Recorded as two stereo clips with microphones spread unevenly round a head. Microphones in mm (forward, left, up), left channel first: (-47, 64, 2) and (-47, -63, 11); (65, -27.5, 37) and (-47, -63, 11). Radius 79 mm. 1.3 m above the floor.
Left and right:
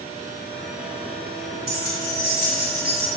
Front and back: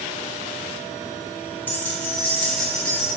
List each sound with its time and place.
1.7 s keys jangling: 55° right, 4 m; by 3.1 s 65° right, 4.5 m